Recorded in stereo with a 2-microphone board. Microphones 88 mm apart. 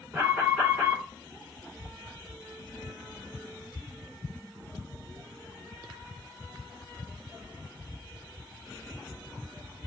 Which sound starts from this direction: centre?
An alarm, at 0.1 s.